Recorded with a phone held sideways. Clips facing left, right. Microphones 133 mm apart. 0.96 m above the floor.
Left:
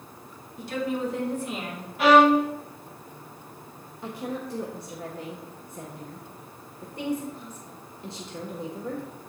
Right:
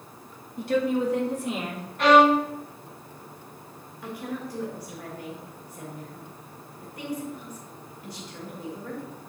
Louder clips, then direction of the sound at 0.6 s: Right 5 dB; 55° right (ahead or behind).